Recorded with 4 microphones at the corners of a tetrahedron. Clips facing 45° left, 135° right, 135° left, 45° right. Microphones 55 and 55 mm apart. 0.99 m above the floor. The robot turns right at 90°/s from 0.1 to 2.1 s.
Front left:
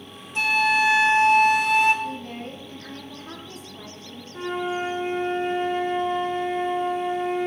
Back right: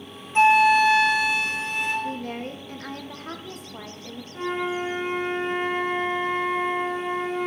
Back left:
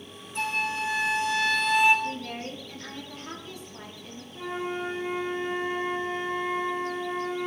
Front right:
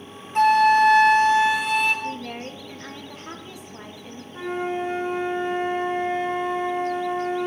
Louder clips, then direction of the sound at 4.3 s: Even, front right 5 dB; 40° right.